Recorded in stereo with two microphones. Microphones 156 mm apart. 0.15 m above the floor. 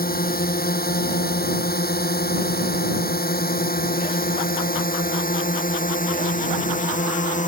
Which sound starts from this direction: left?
A drone, at 0.0 s.